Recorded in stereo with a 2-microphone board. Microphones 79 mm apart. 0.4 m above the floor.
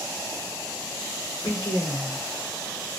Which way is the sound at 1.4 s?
45° left (ahead or behind).